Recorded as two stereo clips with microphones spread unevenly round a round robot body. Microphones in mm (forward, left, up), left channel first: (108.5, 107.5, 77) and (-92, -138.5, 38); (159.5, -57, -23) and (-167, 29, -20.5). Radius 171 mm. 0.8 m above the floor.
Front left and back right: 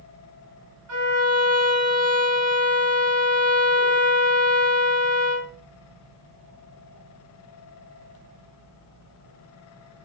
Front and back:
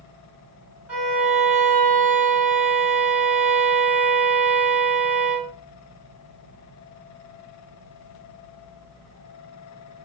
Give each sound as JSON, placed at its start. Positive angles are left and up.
{"t": 0.9, "sound": "a violin", "azimuth_deg": -110, "distance_m": 1.7}